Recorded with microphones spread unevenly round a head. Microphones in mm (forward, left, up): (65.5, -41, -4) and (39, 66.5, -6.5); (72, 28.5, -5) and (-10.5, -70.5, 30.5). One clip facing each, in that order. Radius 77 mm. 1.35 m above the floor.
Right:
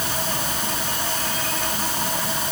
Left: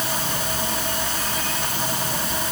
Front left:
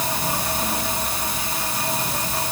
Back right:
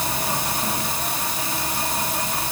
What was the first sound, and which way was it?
Only background noise.